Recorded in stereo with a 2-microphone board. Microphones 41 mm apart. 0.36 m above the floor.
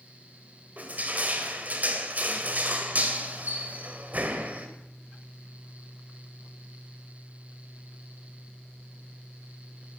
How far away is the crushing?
About 1.8 m.